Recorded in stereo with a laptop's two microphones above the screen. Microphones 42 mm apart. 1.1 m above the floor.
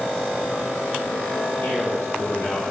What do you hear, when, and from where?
1.6 s a man speaking: 50° left (ahead or behind), 3.5 m